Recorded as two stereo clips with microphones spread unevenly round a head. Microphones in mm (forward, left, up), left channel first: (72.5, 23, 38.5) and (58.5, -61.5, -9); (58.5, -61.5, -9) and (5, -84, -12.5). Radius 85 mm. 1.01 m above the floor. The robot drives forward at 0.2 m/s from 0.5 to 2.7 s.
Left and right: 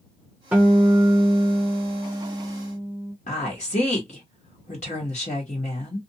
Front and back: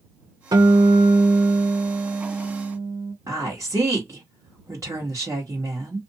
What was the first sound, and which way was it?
A guitar, 170° right.